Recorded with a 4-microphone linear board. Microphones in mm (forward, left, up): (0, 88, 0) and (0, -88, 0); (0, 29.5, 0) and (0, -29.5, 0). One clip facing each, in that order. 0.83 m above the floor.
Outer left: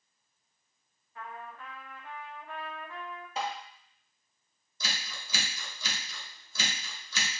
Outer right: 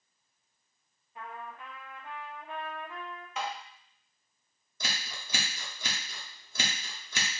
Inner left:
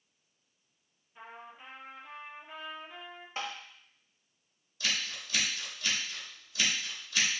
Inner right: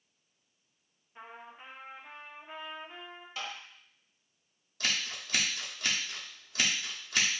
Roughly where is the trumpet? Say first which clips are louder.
Outer right 1 dB, even; right.